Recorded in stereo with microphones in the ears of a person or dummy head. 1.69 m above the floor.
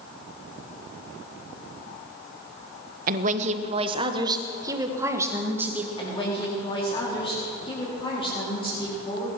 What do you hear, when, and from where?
3.1 s a woman speaking: 45° right (ahead or behind), 0.9 m; by 5.9 s 10° right (ahead or behind), 2 m
6.0 s a woman speaking: 25° left (ahead or behind), 4 m